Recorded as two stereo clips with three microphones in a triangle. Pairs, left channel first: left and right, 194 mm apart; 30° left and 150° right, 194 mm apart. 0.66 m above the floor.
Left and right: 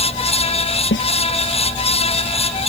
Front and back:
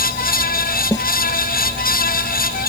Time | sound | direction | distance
0.9 | a snare drum | 105° left | ?